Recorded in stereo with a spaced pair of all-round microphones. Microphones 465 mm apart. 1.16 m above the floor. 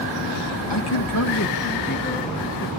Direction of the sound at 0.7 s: 65° left (ahead or behind).